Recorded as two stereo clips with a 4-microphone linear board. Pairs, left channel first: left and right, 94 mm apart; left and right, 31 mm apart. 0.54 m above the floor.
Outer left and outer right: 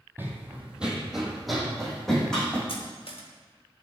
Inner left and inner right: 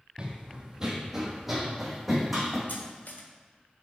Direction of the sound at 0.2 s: 20° right (ahead or behind).